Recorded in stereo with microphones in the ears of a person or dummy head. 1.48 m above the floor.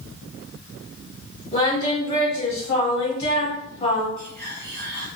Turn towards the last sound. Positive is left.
turn(degrees=0)  # may be behind; listen again after turning